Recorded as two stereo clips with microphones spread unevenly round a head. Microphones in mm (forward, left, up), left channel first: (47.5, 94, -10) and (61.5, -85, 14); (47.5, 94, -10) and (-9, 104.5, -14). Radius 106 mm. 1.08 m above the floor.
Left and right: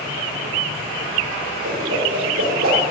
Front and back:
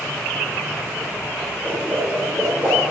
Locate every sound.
1.6 s a whoosh: 110° right, 4.5 m